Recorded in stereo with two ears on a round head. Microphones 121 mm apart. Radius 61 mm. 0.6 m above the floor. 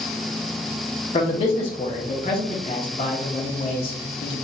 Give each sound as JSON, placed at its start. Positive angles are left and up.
{"t": 1.1, "sound": "a man speaking", "side_deg": 40, "distance_m": 0.9}